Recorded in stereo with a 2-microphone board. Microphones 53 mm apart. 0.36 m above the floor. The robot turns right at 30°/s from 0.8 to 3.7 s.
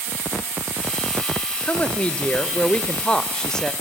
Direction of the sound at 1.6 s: 25° left (ahead or behind).